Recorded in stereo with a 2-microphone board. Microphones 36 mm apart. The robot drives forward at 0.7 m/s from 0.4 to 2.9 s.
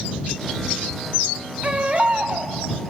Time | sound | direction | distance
1.6 | a baby crying | 40° right (ahead or behind) | 2.5 m